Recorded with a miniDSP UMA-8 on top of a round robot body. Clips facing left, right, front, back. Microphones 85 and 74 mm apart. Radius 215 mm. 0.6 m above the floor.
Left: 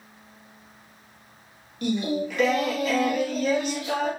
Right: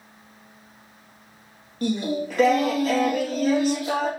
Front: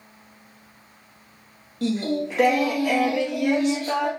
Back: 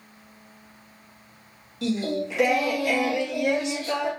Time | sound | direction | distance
1.8 | singing | 40° right | 1.8 m